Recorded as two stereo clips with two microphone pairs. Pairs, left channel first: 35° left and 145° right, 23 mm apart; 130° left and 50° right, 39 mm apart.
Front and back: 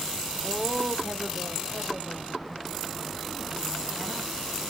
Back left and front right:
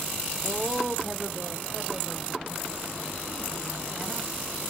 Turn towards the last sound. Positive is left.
turn(degrees=-120)